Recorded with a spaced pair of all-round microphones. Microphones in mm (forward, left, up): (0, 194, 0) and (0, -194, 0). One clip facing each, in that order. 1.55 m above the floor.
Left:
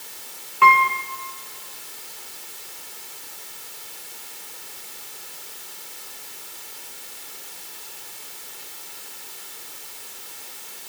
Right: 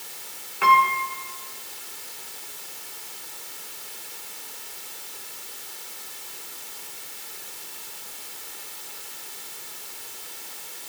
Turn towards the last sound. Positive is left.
turn(degrees=10)  # may be behind; listen again after turning